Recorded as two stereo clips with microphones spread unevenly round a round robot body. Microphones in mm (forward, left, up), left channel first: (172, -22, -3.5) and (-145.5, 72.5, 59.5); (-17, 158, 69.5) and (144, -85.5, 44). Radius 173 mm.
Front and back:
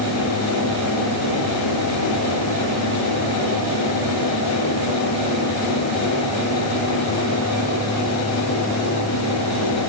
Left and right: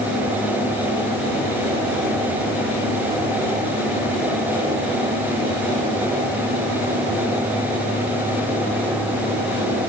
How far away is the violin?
No violin in this recording.